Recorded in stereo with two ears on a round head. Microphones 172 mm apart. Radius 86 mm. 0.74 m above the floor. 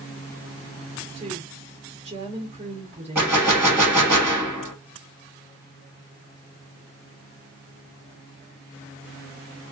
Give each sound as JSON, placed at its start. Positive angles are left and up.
{"t": 1.1, "sound": "a woman speaking", "side_deg": -30, "distance_m": 1.0}
{"t": 3.1, "sound": "a gunshot", "side_deg": -10, "distance_m": 1.2}